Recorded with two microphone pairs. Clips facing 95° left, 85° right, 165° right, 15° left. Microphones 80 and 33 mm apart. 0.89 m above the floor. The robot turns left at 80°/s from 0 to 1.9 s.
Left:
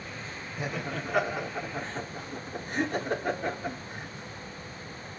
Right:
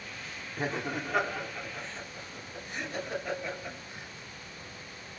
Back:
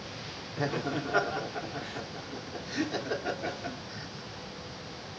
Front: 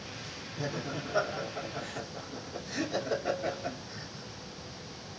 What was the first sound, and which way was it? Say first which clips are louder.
Laughter: right 1 dB, back 5 dB; 130° right.